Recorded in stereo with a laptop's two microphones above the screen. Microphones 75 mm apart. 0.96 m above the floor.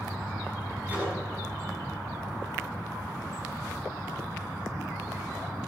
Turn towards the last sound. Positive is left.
turn(degrees=-20)  # may be behind; listen again after turning